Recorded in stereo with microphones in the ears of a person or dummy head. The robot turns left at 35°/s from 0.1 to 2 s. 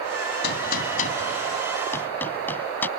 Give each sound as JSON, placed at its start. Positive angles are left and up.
{"t": 0.4, "sound": "a gunshot", "side_deg": 70}